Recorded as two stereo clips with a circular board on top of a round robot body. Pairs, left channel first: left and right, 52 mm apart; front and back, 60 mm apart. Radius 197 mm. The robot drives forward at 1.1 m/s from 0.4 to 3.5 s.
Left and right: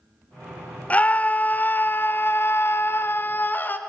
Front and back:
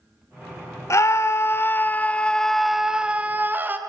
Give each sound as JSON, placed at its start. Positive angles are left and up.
{"t": 0.9, "sound": "a scream", "azimuth_deg": 30, "distance_m": 2.5}